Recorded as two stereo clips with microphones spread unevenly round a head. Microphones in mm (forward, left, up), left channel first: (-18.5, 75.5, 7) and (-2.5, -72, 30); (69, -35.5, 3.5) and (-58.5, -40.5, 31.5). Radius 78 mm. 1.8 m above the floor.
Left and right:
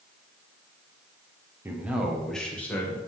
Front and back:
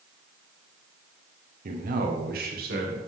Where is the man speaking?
160° right, 1.7 m; by 3.0 s 175° left, 2.5 m.